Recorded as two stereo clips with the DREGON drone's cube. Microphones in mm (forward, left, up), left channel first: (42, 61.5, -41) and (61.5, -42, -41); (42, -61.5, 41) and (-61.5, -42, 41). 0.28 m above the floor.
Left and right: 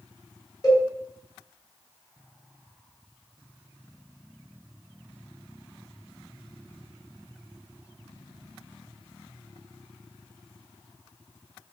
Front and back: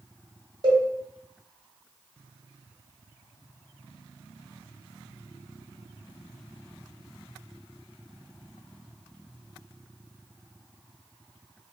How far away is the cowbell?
About 1.5 m.